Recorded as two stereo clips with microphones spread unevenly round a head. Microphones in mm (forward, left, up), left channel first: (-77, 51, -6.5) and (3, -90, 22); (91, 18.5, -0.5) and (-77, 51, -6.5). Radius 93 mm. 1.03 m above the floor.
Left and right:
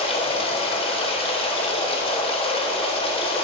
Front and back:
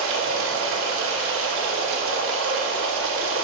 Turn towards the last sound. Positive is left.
turn(degrees=175)